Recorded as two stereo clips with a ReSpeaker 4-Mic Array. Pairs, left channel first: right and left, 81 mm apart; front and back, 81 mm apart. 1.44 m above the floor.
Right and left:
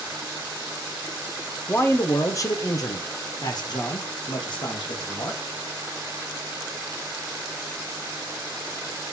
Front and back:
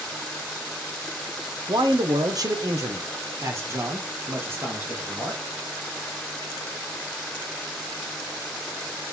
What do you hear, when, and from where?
1.7 s a man speaking: 155° right, 1.1 m; by 5.4 s 115° right, 3 m